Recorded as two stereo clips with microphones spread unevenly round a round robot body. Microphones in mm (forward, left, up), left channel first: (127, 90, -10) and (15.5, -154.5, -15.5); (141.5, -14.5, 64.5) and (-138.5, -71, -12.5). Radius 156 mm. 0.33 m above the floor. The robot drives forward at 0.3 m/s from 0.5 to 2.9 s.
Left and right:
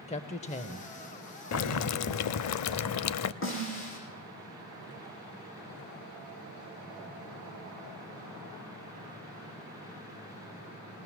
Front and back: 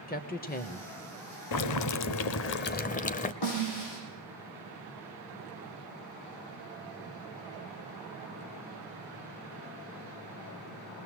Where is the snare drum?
25° left, 8 m.